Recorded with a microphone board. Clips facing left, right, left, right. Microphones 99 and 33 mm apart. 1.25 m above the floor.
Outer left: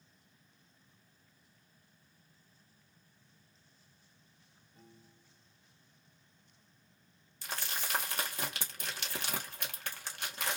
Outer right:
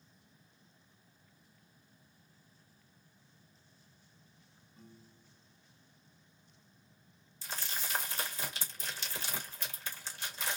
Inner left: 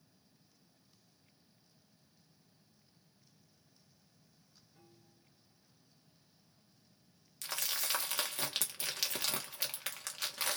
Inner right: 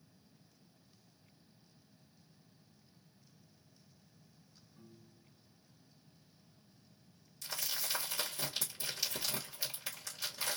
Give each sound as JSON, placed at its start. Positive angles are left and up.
{"t": 4.8, "sound": "a piano", "side_deg": 75, "distance_m": 3.0}
{"t": 7.4, "sound": "crumpling", "side_deg": 65, "distance_m": 1.5}